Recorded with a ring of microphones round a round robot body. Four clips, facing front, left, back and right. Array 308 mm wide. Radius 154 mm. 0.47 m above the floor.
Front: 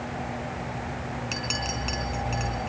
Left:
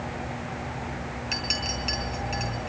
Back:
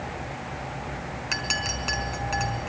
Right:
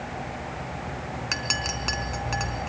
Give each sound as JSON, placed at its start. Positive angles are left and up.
{"t": 1.3, "sound": "a clink", "azimuth_deg": -115, "distance_m": 4.0}